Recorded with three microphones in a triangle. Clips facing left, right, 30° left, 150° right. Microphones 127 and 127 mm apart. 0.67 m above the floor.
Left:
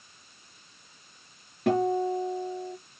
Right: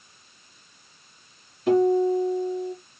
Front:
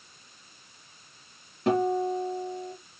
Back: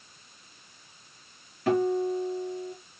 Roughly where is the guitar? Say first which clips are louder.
Right 6 dB, even; left.